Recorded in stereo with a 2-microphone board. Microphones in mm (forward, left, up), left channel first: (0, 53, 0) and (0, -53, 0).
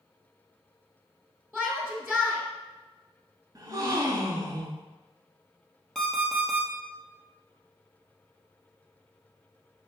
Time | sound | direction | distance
1.5 | a shout | 5° right (ahead or behind) | 1.3 m
3.5 | a gasp | 35° right (ahead or behind) | 0.6 m
6.0 | an alarm clock | 5° left (ahead or behind) | 1.1 m